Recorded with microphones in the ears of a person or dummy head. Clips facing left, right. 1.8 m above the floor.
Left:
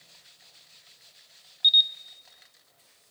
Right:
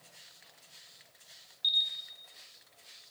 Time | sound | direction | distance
1.6 | a camera shutter | 15° left (ahead or behind) | 0.7 m